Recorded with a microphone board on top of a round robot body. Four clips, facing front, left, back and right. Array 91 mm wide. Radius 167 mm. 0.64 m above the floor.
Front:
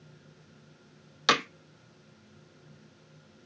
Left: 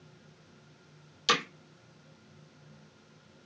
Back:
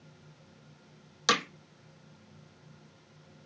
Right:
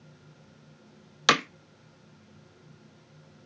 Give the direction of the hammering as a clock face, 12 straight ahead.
2 o'clock.